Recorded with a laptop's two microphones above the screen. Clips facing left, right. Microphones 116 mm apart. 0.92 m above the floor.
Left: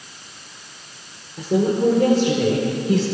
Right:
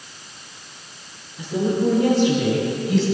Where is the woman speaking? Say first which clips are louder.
Left 3 dB; 80° left, 3.5 m; by 3.0 s 70° left (ahead or behind), 4 m.